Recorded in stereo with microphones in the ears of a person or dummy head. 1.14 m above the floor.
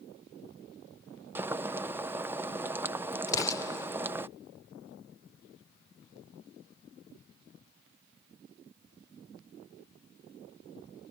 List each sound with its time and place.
1.4 s boiling: 10° right (ahead or behind)
3.3 s an explosion: 20° left (ahead or behind)